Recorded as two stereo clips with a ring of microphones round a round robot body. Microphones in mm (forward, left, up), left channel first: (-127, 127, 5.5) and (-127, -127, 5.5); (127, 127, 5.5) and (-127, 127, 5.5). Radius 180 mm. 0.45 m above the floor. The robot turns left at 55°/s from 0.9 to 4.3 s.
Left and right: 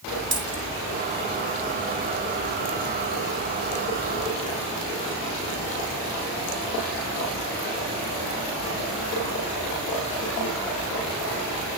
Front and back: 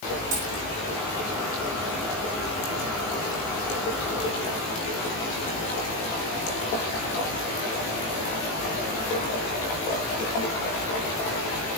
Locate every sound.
0.3 s a dropped coin: 135° right, 5.5 m